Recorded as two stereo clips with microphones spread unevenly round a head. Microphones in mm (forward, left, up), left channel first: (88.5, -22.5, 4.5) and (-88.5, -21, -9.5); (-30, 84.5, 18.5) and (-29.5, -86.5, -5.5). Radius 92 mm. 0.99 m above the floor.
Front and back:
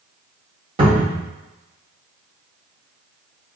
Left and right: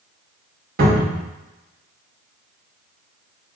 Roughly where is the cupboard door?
Behind right.